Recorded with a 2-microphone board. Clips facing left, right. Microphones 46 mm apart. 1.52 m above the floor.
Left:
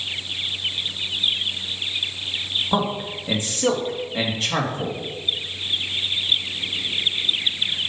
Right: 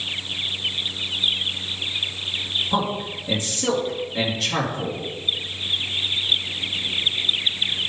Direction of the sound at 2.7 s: 30° left (ahead or behind).